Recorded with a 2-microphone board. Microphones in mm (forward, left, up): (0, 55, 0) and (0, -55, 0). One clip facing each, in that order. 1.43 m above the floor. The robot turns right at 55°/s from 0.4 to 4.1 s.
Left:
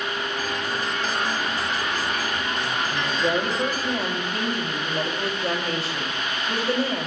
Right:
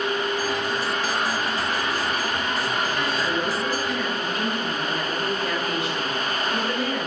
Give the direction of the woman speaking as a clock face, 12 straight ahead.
10 o'clock.